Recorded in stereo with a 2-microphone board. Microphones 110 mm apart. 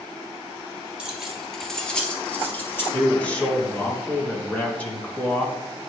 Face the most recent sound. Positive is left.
turn(degrees=15)  # may be behind; listen again after turning